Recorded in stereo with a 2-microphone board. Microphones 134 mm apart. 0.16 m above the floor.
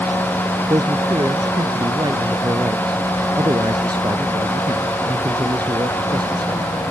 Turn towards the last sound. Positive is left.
turn(degrees=-35)  # may be behind; listen again after turning